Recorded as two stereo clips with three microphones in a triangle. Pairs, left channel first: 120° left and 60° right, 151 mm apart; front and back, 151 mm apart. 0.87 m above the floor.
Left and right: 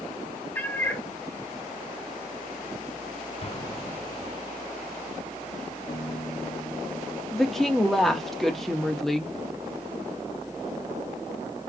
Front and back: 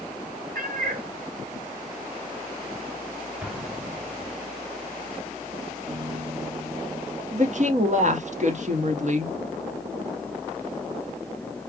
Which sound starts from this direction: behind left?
A piano, at 5.9 s.